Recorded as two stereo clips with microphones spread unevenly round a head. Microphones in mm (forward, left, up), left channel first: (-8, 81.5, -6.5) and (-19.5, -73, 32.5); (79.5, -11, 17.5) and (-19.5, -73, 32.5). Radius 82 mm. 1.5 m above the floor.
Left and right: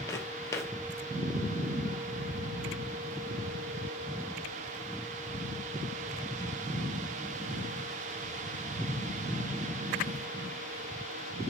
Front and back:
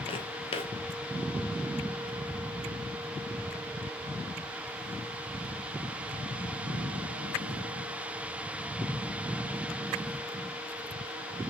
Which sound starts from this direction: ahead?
Footsteps, at 0.1 s.